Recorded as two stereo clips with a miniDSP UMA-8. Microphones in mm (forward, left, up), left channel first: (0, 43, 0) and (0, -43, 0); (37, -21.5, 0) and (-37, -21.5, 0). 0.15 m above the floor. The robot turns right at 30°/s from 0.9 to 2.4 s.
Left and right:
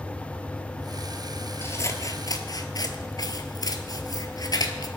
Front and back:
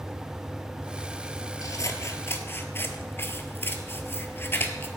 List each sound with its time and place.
1.6 s scissors: 30° left, 1.1 m; by 4.9 s 55° left, 1.1 m